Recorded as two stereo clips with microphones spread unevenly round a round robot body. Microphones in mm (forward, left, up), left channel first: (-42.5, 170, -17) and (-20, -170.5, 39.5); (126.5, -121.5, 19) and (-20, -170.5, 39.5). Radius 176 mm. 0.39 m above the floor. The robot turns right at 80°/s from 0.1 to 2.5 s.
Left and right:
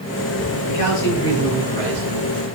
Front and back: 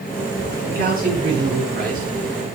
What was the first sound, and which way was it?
A man speaking, 125° left.